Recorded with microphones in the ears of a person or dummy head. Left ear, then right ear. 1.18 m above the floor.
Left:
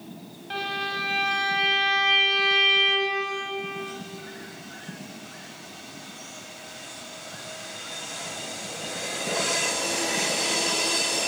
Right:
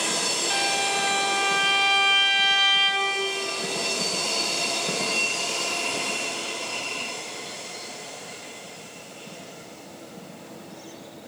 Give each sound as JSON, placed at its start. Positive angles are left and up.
{"t": 0.5, "sound": "a violin", "side_deg": -45, "distance_m": 3.0}